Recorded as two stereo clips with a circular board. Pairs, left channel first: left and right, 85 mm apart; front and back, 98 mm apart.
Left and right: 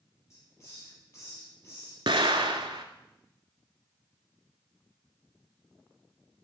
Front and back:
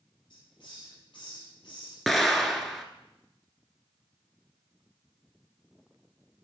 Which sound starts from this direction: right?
An explosion, at 2.1 s.